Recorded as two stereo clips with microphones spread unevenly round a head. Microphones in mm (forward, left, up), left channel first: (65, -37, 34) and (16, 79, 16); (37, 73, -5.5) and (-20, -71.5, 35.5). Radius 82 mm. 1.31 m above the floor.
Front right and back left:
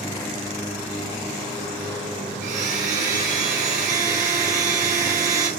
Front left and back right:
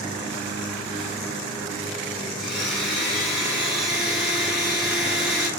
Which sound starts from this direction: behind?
A blender, at 2.4 s.